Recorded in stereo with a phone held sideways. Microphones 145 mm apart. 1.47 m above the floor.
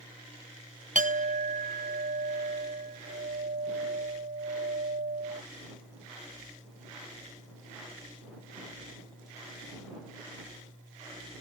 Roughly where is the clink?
Right.